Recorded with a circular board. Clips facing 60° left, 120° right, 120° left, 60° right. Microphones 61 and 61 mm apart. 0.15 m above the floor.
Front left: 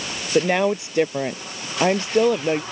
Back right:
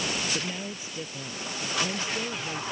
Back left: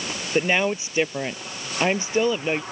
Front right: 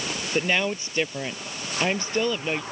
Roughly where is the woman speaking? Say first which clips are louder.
Front left 16 dB, back left 3 dB; ahead left.